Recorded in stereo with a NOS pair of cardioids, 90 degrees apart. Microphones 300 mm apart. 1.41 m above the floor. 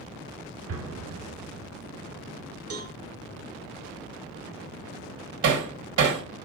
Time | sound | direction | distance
0.7 | an explosion | 55° right | 2 m
2.7 | a cowbell | 50° right | 1.5 m
5.4 | hammering | 65° right | 2 m